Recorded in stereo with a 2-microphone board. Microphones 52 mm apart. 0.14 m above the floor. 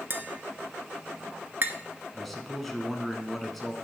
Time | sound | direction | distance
0.1 | tapping | 40° right (ahead or behind) | 0.6 m
2.1 | a man speaking | 5° left (ahead or behind) | 1.0 m